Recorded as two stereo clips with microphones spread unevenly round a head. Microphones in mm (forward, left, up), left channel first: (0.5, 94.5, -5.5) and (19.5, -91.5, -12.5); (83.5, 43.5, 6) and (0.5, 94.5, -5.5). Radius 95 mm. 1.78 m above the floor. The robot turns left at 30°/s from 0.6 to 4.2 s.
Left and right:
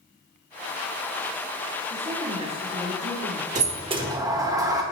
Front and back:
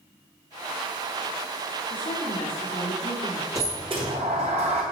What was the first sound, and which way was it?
A woman speaking, 20° right.